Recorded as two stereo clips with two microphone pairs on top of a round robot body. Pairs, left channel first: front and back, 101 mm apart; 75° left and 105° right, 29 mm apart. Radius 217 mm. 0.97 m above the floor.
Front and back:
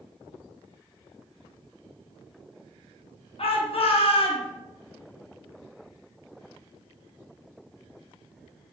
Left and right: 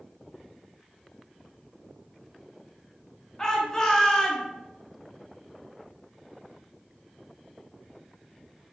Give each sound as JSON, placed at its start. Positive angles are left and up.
{"t": 3.4, "sound": "a shout", "azimuth_deg": 0, "distance_m": 1.5}